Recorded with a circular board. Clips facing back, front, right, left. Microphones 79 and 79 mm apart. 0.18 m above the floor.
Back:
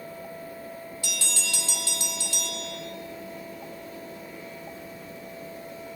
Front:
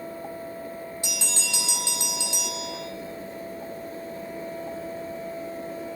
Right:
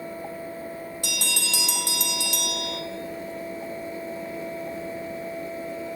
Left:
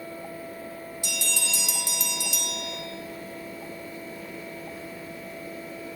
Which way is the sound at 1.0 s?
70° right.